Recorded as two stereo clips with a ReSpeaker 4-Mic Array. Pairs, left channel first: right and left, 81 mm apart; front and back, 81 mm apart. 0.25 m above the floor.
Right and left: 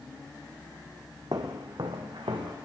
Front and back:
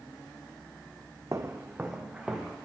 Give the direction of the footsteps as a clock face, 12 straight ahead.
8 o'clock.